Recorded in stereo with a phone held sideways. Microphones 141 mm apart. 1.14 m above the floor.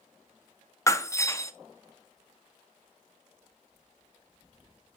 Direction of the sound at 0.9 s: 20° left (ahead or behind).